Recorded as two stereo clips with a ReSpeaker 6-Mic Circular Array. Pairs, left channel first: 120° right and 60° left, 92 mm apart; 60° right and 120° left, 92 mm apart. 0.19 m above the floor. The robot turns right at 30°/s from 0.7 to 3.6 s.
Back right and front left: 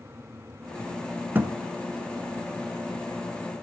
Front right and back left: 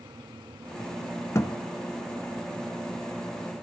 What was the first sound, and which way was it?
A thud, 5° right.